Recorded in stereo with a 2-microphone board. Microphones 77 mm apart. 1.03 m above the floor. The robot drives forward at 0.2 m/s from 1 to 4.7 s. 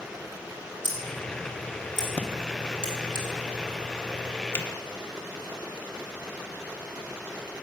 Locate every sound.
0.8 s scissors: 80° left, 3 m; by 3.2 s 75° left (ahead or behind), 3 m
2.2 s breathing: 20° left (ahead or behind), 0.9 m
4.5 s a finger snap: 30° left (ahead or behind), 1.4 m